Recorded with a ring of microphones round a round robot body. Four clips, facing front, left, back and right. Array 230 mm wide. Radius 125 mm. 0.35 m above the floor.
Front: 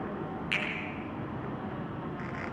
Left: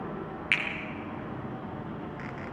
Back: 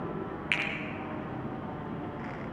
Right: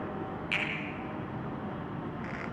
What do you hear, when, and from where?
0.5 s a finger snap: 110° left, 8 m